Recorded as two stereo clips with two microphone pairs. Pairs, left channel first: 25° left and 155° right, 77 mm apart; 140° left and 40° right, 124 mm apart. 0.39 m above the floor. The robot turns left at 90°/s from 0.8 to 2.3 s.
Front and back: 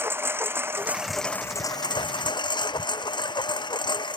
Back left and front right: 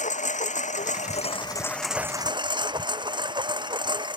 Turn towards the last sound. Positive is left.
turn(degrees=15)